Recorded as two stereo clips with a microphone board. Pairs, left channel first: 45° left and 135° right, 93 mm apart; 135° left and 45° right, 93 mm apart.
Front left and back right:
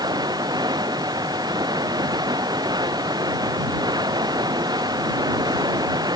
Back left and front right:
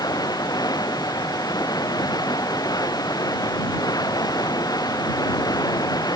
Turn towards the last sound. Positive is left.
turn(degrees=180)